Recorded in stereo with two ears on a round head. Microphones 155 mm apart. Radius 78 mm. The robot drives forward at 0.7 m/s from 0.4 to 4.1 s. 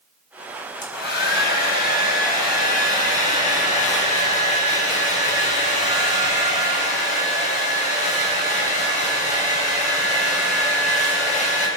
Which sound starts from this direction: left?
A hair dryer, at 0.8 s.